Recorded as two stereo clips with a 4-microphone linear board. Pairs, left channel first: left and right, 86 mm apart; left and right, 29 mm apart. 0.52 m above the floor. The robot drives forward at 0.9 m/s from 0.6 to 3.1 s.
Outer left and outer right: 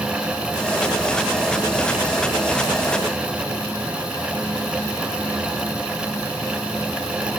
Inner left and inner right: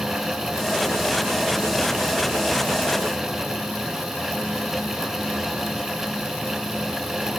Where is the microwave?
I don't hear a microwave.